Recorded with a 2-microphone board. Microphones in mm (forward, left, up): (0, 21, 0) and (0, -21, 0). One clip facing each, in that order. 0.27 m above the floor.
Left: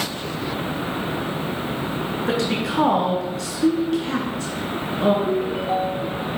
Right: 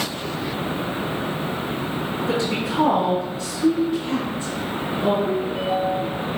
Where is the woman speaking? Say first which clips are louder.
Left 1 dB; 70° left (ahead or behind), 3 m.